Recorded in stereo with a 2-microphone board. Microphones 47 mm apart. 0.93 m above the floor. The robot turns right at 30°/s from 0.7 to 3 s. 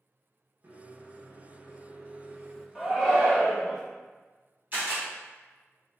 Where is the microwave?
105° right, 0.8 m; by 2.6 s 45° right, 0.8 m.